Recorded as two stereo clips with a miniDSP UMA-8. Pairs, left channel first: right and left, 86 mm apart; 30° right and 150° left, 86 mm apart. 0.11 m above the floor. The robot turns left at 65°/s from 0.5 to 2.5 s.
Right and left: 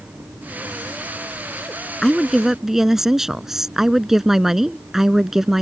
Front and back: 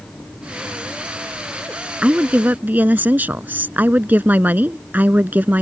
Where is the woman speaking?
160° right; by 5.6 s 170° left.